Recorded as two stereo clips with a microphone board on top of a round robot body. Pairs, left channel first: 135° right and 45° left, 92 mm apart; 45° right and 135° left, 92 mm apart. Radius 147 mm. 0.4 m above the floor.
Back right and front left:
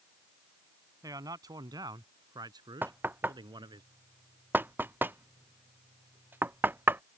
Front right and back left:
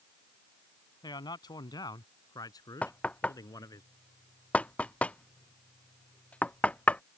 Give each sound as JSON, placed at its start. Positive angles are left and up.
{"t": 1.0, "sound": "a man speaking", "azimuth_deg": -5}
{"t": 2.8, "sound": "knocking", "azimuth_deg": 10}